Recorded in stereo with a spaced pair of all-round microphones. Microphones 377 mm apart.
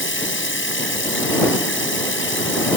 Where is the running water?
30° left (ahead or behind).